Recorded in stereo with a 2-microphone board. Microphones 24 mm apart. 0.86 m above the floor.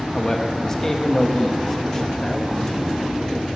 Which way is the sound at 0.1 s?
15° left (ahead or behind).